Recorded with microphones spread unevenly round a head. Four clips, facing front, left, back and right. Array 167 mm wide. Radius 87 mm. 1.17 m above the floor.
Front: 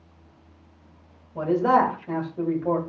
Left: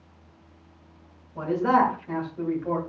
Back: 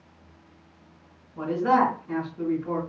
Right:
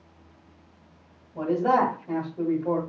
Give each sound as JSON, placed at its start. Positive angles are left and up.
{"t": 1.4, "sound": "a man speaking", "azimuth_deg": -10, "distance_m": 2.5}